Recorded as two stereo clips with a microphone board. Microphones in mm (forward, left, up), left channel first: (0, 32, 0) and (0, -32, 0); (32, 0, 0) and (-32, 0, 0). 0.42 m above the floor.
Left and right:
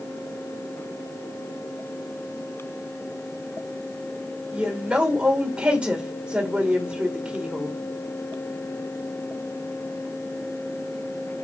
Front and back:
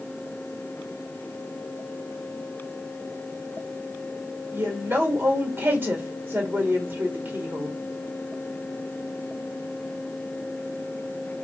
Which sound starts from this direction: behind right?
A woman speaking, at 4.5 s.